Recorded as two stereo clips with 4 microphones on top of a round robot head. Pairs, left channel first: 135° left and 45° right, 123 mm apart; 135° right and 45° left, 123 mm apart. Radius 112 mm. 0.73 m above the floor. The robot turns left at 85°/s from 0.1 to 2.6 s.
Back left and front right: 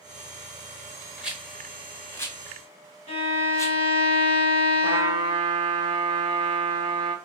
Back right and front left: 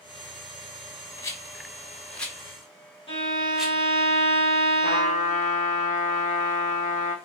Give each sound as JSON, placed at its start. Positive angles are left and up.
{"t": 1.2, "sound": "a rattle", "azimuth_deg": -115, "distance_m": 1.0}
{"t": 3.1, "sound": "a violin", "azimuth_deg": -80, "distance_m": 2.0}
{"t": 4.8, "sound": "a trumpet", "azimuth_deg": -100, "distance_m": 0.6}